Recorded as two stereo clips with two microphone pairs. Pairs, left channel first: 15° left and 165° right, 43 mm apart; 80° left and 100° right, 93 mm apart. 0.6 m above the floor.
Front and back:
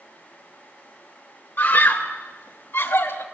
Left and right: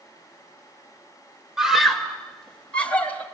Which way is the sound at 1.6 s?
15° right.